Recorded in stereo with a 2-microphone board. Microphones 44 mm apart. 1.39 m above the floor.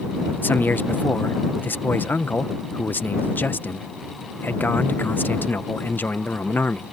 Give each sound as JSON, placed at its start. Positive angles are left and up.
{"t": 0.4, "sound": "a man speaking", "side_deg": 45}